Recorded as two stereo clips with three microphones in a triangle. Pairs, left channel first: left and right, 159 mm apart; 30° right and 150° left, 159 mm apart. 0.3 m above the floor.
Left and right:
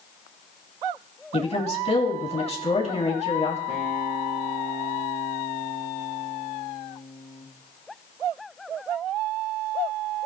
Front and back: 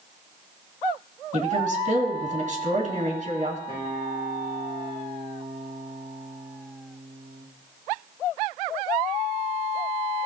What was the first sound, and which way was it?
A woman speaking, 125° left.